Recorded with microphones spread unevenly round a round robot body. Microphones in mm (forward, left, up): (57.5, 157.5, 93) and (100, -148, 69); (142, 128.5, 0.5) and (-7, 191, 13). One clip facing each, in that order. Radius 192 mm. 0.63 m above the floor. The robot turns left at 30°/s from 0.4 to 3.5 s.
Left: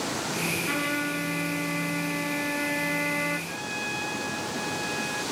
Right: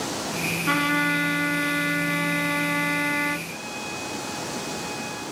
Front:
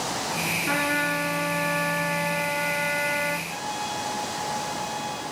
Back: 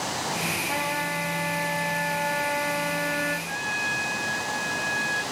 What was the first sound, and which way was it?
A trumpet, 60° right.